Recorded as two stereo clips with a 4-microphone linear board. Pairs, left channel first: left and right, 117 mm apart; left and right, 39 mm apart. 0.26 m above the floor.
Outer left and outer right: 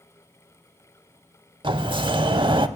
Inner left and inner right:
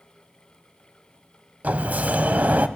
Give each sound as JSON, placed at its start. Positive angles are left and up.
{"t": 1.6, "sound": "a sliding door", "side_deg": -45, "distance_m": 0.6}